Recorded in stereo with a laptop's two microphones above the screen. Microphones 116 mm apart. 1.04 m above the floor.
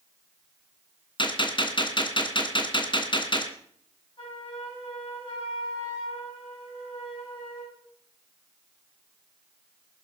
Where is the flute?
50° left (ahead or behind), 8.5 m.